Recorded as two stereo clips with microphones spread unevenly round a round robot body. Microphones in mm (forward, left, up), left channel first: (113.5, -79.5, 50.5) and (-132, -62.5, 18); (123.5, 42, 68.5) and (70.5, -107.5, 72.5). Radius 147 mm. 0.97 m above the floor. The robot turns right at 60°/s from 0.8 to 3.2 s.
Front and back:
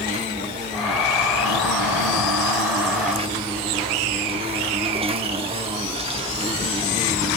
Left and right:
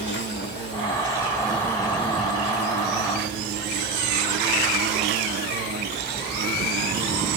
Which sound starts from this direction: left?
An insect, at 0.0 s.